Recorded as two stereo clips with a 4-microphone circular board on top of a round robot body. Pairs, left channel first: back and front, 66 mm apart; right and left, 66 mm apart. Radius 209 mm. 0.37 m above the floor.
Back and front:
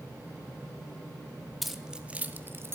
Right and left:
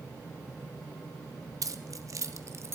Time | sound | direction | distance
1.6 | keys jangling | 90° left | 1.1 m